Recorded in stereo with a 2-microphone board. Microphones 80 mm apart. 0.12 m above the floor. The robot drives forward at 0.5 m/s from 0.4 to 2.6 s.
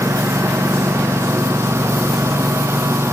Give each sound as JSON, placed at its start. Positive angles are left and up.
{"t": 0.0, "sound": "a lawn mower", "side_deg": -35}